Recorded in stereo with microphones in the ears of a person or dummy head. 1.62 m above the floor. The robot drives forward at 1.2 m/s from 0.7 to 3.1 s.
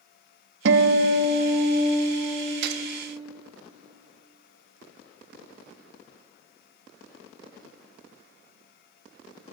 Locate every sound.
0.7 s a guitar: 75° right (ahead or behind), 0.7 m; by 2.5 s 15° right (ahead or behind), 2 m
2.6 s a gunshot: 60° right (ahead or behind), 0.6 m